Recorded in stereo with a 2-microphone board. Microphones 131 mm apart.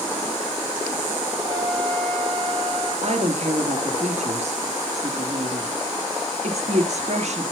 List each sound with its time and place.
1.5 s a flute: 50° right (ahead or behind), 2.0 m
3.0 s a woman speaking: 60° right (ahead or behind), 2.5 m